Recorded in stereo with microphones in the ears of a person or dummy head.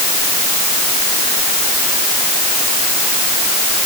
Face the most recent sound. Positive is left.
No sound to turn to.